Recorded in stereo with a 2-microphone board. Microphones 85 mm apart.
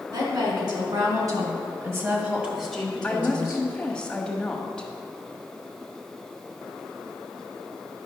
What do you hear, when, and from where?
0.1 s a woman speaking: 60° right (ahead or behind), 3 m; by 3.7 s 35° left (ahead or behind), 1.6 m
3.0 s a woman speaking: 10° left (ahead or behind), 1.2 m